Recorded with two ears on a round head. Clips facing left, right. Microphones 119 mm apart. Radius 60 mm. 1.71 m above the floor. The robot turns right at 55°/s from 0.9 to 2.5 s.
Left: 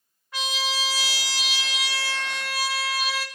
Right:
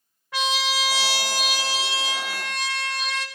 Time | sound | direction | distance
0.3 | a trumpet | 85° right | 0.8 m